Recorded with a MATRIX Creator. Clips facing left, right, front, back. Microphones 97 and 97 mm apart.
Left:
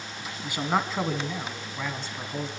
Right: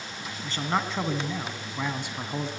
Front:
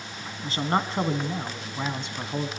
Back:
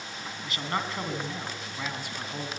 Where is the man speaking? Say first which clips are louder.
Left 2 dB, front 6 dB; 25° left, 2 m; by 2.5 s 50° right, 2.0 m.